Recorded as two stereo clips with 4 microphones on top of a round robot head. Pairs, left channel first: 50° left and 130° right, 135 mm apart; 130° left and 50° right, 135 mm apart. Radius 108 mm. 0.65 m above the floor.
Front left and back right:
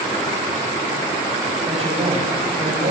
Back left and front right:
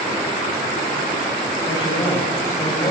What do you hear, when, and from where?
1.7 s a man speaking: 175° right, 6 m; by 2.9 s 170° right, 5 m